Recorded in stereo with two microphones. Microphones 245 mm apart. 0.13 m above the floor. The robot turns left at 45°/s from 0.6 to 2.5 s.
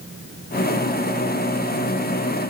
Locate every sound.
Only background noise.